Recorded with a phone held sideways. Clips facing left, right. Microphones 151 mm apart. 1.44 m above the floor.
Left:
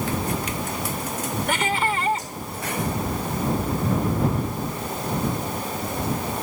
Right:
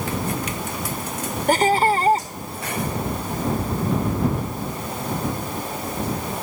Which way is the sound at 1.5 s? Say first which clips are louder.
Right 9 dB; 40° right (ahead or behind).